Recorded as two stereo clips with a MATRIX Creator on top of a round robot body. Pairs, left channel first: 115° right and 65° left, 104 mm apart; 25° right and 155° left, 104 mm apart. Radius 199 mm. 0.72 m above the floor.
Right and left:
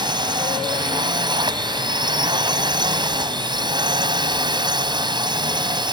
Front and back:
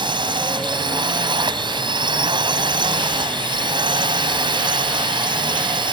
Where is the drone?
115° left.